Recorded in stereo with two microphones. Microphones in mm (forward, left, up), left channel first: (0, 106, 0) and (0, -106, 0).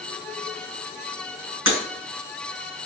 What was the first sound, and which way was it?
Breaking glass, 80° right.